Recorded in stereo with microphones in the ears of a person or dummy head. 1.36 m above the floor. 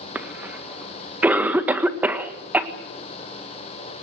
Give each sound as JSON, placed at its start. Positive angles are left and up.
{"t": 0.1, "sound": "a cough", "side_deg": -10, "distance_m": 1.5}